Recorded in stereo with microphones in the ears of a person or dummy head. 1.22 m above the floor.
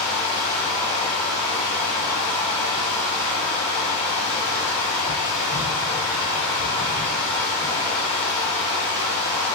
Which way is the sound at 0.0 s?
Centre (ahead or behind).